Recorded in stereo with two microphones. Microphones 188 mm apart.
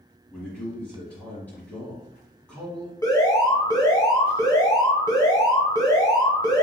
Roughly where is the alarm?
Centre.